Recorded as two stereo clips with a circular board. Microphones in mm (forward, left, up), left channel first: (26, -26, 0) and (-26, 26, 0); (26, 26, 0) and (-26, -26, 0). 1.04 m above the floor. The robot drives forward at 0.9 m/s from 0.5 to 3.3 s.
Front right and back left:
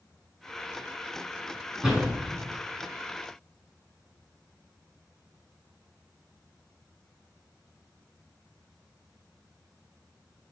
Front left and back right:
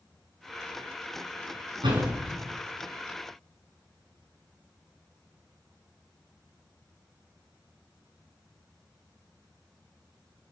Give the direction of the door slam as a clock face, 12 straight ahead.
5 o'clock.